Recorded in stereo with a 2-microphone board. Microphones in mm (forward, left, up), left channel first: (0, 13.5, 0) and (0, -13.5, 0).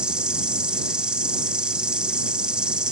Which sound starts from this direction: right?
An insect, at 0.0 s.